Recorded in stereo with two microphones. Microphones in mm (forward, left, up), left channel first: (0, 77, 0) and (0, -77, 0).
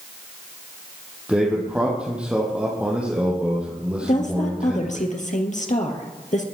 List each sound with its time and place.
1.3 s a man speaking: 10° right (ahead or behind), 3.5 m
4.0 s a woman speaking: 60° left (ahead or behind), 3 m